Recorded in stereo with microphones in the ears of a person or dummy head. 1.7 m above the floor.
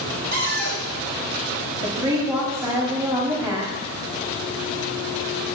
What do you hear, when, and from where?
0.3 s a cupboard door: 60° right (ahead or behind), 1.3 m
1.8 s a woman speaking: 25° right (ahead or behind), 1.4 m